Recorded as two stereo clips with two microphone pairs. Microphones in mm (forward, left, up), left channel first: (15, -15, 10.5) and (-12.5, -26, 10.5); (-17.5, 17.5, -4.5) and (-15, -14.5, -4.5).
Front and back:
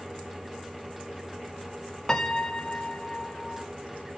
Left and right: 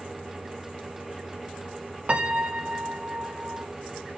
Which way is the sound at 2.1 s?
50° right.